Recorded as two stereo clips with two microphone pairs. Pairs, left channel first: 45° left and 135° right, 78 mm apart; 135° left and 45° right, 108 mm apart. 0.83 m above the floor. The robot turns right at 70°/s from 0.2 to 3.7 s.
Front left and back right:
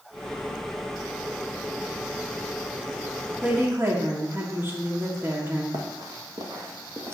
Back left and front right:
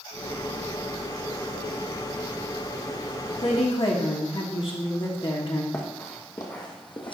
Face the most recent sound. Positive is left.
turn(degrees=170)